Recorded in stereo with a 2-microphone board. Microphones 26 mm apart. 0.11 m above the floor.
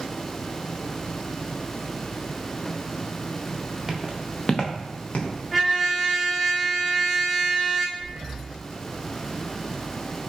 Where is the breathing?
40° right (ahead or behind), 0.8 m.